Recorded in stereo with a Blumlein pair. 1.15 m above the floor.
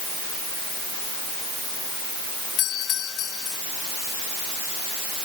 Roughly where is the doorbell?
Ahead left.